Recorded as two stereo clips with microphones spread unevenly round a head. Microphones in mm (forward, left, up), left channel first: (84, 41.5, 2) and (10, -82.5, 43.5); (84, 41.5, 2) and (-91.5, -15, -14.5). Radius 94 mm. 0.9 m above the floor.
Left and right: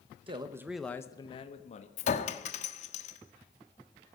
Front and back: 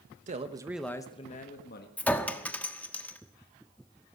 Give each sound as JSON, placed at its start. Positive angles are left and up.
{"t": 0.3, "sound": "a man speaking", "azimuth_deg": 175, "distance_m": 1.2}
{"t": 2.0, "sound": "a clink", "azimuth_deg": 100, "distance_m": 1.3}